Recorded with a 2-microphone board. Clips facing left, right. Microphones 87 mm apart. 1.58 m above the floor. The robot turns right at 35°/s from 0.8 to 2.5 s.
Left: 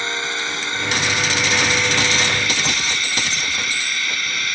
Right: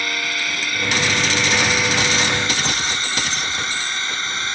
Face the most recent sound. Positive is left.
turn(degrees=-150)